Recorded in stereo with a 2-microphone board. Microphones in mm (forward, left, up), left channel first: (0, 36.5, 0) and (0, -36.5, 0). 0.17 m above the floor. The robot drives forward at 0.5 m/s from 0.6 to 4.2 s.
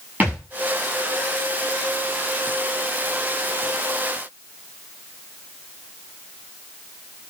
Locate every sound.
0.2 s a thud: 20° right (ahead or behind), 7.5 m